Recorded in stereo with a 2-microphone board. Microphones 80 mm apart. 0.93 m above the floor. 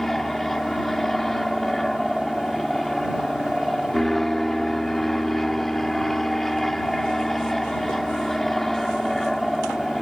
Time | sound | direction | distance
0.0 | an aircraft | 5° left (ahead or behind) | ?